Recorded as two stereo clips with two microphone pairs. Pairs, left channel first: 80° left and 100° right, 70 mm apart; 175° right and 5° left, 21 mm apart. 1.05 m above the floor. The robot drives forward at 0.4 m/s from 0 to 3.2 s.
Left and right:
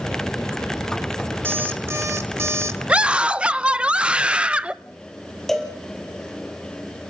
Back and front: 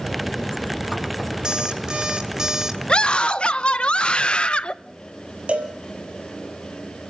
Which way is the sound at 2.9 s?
170° right.